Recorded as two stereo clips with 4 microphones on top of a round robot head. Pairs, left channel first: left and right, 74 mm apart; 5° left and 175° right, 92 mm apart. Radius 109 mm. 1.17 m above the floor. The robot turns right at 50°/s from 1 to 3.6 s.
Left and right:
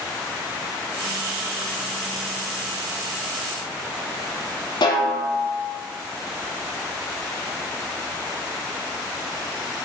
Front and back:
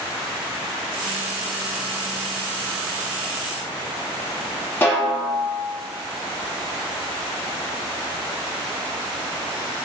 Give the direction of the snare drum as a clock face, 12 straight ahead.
10 o'clock.